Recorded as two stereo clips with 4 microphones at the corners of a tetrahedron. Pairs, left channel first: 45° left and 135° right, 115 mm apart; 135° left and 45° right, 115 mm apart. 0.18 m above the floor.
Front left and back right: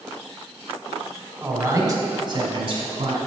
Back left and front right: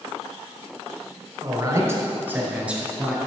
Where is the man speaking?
80° right, 1.2 m; by 3.2 s 130° right, 1.7 m.